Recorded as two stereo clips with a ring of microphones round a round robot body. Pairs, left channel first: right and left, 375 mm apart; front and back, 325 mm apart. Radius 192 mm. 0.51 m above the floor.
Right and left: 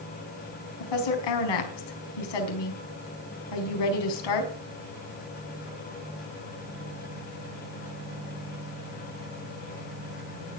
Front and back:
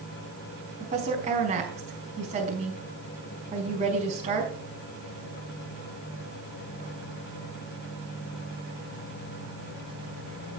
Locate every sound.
0.8 s a woman speaking: 105° right, 4.5 m